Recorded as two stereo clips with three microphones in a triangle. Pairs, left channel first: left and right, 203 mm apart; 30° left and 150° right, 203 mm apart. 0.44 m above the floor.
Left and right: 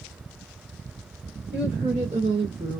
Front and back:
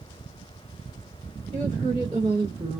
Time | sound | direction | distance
1.5 | a woman speaking | 110° right | 1.9 m